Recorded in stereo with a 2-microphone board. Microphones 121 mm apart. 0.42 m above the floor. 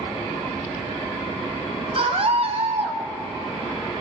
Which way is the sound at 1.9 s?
55° right (ahead or behind).